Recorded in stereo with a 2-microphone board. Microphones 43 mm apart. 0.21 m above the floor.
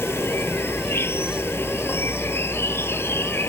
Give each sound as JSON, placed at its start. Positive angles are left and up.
{"t": 0.0, "sound": "an insect", "side_deg": 75}